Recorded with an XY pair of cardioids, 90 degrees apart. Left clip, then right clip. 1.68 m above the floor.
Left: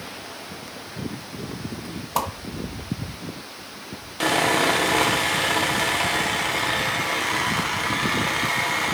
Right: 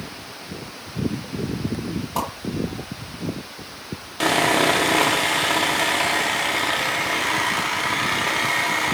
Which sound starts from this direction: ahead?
Sawing, at 4.2 s.